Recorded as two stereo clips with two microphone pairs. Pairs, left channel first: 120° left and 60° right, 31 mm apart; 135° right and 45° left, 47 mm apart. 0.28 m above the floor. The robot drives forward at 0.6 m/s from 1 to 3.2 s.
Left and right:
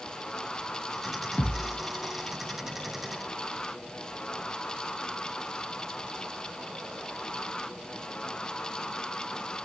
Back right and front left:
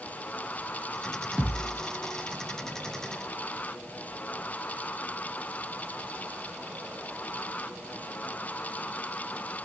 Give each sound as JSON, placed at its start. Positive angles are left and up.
{"t": 1.4, "sound": "a thud", "azimuth_deg": 115, "distance_m": 3.0}